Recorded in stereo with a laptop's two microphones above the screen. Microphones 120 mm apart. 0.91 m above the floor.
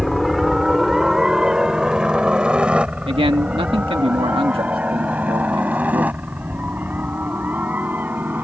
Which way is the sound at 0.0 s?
Centre (ahead or behind).